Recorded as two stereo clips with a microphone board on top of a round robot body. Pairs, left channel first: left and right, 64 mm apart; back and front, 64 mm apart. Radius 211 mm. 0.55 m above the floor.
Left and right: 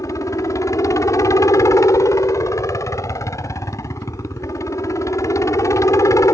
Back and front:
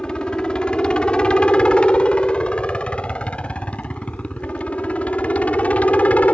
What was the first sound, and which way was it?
A helicopter, 105° left.